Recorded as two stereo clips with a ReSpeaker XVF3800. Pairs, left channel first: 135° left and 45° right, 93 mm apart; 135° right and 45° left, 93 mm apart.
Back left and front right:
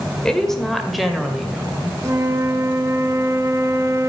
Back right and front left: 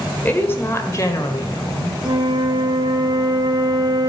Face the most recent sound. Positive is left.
turn(degrees=10)